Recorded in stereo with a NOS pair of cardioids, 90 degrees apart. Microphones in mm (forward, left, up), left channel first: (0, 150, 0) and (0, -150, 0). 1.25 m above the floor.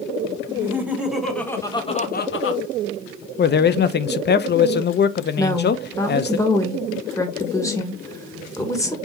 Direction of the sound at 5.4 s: 10° left.